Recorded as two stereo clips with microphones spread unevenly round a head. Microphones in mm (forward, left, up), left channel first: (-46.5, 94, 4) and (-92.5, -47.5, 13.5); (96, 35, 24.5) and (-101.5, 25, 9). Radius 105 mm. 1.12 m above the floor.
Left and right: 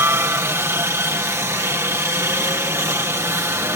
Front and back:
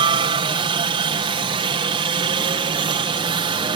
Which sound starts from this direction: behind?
A helicopter, at 0.0 s.